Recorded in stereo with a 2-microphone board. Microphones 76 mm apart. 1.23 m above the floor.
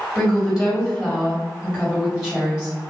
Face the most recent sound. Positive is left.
turn(degrees=-5)  # may be behind; listen again after turning